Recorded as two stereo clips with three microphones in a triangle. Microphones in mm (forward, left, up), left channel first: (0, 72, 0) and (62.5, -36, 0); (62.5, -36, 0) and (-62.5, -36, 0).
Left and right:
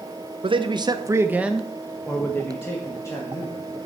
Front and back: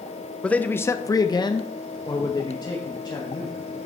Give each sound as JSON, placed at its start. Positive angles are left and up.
{"t": 0.4, "sound": "a man speaking", "azimuth_deg": -80, "distance_m": 0.8}